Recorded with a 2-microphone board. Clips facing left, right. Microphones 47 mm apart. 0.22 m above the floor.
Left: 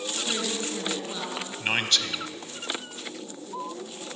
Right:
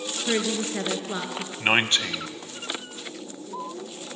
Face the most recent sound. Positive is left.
turn(degrees=-30)  # may be behind; listen again after turning